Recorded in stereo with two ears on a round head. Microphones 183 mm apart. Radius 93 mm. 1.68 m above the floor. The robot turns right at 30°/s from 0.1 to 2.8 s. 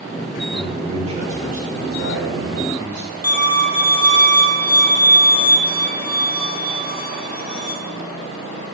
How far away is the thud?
I don't hear a thud.